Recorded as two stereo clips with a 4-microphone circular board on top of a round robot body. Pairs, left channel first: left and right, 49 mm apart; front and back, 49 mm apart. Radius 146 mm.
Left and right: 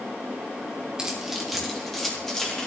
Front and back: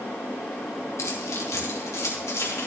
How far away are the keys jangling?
About 1.5 m.